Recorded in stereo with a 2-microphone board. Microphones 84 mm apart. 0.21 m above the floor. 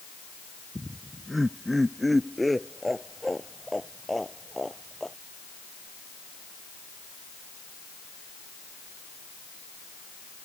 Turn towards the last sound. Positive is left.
turn(degrees=0)  # may be behind; listen again after turning